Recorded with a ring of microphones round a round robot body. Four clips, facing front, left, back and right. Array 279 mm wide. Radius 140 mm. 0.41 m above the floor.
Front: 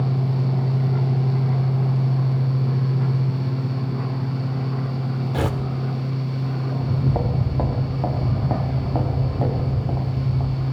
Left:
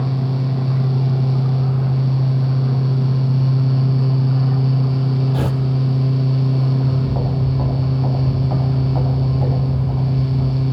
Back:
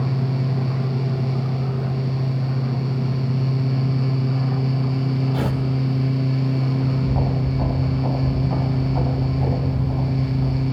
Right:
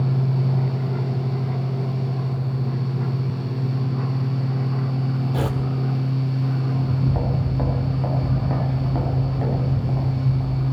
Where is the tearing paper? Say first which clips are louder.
Left 3 dB, even; 5° left, 1.5 m.